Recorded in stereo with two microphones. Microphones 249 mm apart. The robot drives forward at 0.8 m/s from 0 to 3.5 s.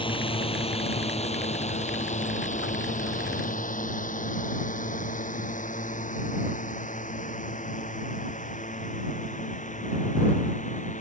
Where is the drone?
20° left (ahead or behind); by 11.0 s 30° left (ahead or behind).